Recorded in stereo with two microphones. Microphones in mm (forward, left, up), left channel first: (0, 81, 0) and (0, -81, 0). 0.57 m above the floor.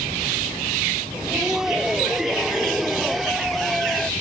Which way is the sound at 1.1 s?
5° right (ahead or behind).